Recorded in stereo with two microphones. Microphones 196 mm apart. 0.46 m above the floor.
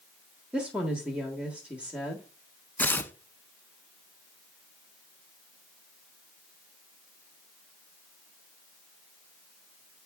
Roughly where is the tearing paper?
Centre.